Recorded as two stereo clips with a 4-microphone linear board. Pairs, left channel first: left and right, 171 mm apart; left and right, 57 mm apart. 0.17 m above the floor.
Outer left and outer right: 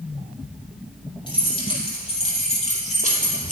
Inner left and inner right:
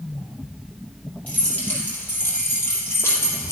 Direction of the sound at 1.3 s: 25° left (ahead or behind).